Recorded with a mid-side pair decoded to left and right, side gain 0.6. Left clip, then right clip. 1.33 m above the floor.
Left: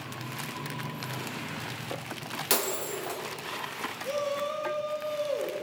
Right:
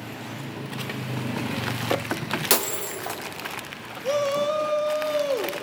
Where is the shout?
45° right, 0.8 m.